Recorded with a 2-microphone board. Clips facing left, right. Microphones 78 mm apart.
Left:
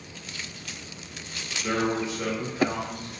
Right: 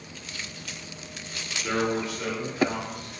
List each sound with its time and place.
1.6 s a man speaking: 20° left (ahead or behind), 0.9 m